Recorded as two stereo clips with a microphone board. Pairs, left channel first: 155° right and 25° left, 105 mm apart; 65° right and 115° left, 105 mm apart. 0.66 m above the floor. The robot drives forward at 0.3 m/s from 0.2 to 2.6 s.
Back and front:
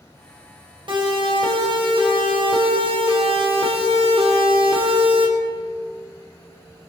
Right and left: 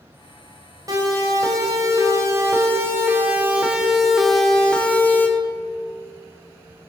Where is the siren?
60° left, 4 m; by 5.3 s straight ahead, 2.5 m.